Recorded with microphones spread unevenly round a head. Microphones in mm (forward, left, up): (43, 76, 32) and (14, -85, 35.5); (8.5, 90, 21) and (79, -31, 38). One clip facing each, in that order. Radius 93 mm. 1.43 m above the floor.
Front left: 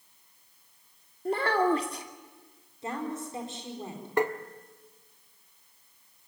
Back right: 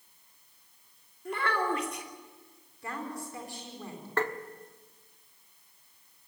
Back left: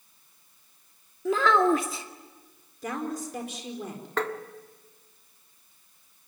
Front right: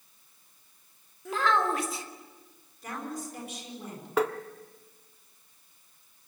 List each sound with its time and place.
1.2 s a child speaking: 140° left, 2 m
2.8 s a woman speaking: 150° left, 4.5 m
4.2 s tapping: 10° left, 1.2 m